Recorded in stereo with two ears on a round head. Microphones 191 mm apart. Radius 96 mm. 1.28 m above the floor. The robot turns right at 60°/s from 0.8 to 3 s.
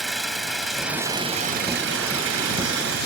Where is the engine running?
Straight behind; by 3.1 s 50° right.